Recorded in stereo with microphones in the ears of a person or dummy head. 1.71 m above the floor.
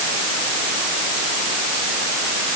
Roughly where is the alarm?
I don't hear an alarm.